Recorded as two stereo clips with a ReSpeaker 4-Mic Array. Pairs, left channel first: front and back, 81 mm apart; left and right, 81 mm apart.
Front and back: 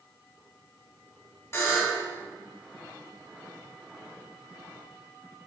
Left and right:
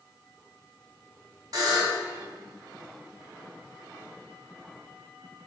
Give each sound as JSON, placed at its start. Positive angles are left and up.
{"t": 1.5, "sound": "a buzzer", "azimuth_deg": -55, "distance_m": 2.5}